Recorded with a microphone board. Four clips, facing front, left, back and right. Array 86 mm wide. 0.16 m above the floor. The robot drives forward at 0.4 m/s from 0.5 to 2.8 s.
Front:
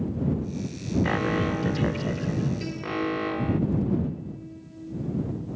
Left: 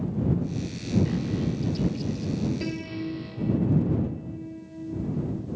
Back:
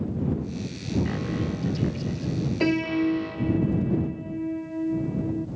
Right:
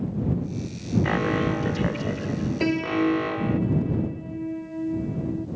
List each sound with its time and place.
1.0 s an alarm: 55° right
2.6 s a piano: 145° right; by 5.5 s 150° right